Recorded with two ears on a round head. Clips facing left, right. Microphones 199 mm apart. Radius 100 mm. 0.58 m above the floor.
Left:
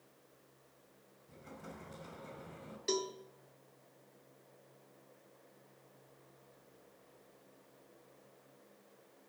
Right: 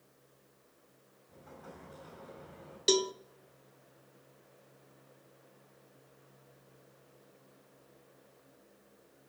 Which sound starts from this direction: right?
A cowbell, at 2.9 s.